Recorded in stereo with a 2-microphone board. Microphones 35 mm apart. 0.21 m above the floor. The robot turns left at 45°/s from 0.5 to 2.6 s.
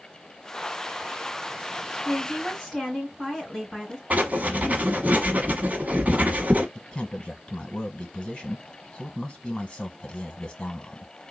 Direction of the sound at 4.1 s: 50° right (ahead or behind).